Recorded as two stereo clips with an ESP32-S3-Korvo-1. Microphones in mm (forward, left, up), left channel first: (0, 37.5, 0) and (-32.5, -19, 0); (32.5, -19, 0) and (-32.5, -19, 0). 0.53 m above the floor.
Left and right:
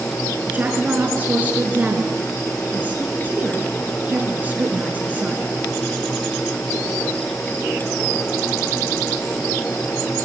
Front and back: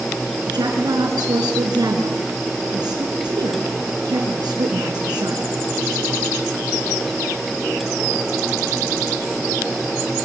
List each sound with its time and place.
0.5 s a woman speaking: 175° left, 5.5 m